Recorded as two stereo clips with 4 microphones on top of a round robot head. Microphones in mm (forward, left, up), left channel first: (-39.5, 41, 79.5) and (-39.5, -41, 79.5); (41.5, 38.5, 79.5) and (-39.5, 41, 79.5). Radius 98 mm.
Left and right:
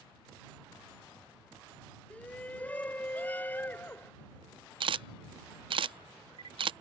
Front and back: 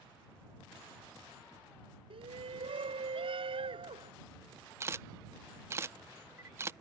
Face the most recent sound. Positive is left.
turn(degrees=-115)